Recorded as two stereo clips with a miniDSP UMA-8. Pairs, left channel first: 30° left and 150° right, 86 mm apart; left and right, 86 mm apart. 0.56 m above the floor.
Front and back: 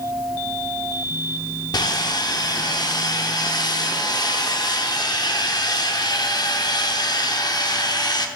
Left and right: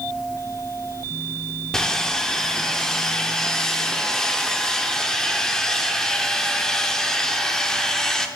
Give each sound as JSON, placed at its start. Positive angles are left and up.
{"t": 1.7, "sound": "sawing", "azimuth_deg": 10, "distance_m": 0.6}